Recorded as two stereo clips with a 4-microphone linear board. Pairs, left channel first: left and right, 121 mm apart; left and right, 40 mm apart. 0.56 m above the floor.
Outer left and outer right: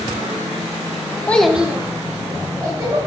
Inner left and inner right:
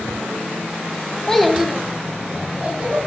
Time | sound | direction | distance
1.3 | a child speaking | 15° left (ahead or behind) | 0.5 m